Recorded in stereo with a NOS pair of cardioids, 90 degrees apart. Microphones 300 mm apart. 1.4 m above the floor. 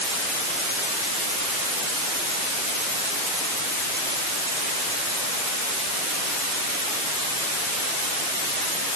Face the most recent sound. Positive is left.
No sound to turn to.